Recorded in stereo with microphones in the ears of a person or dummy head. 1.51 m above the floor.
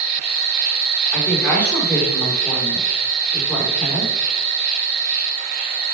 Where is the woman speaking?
10° left (ahead or behind), 4.5 m.